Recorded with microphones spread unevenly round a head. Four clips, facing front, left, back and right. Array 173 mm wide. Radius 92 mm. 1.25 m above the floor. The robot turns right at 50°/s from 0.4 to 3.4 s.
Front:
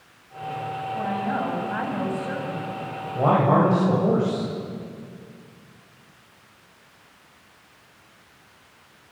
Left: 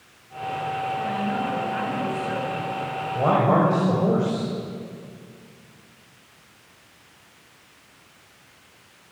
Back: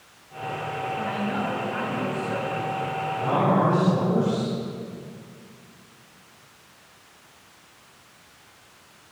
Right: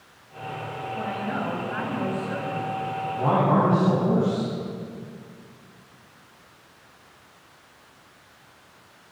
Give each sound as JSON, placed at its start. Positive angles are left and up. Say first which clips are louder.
{"t": 0.9, "sound": "a woman speaking", "louder": "left 3 dB, front 4 dB", "azimuth_deg": -40, "distance_m": 8.0}
{"t": 3.1, "sound": "a man speaking", "louder": "left 2 dB, front 4 dB", "azimuth_deg": 40, "distance_m": 8.0}